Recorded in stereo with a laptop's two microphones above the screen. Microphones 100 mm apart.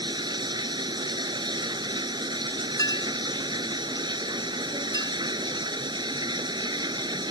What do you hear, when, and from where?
0.0 s running water: 45° right (ahead or behind)
2.8 s a clink: 35° left (ahead or behind)